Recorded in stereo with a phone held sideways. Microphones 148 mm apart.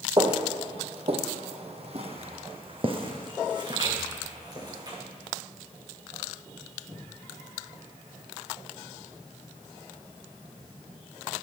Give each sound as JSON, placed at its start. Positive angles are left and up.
{"t": 0.2, "sound": "footsteps", "side_deg": -30, "distance_m": 1.3}